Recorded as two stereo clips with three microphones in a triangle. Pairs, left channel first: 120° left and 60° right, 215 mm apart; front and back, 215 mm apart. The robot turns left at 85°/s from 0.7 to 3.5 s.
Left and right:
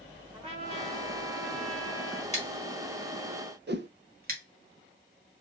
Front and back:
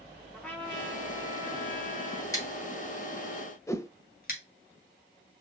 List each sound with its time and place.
0.3 s a trumpet: 80° right, 1.2 m; by 2.2 s 150° left, 1.2 m
2.3 s scissors: 70° left, 1.8 m; by 4.4 s 30° right, 1.8 m
3.7 s a whoosh: 75° right, 0.5 m